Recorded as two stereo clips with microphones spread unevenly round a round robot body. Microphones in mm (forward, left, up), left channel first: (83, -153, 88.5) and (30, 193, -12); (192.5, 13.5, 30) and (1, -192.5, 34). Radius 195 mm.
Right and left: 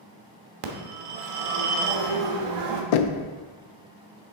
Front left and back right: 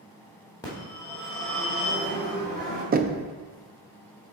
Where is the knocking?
85° right, 0.5 m.